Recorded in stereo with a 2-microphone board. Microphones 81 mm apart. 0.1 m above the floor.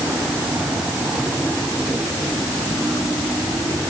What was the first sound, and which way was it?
Only background noise.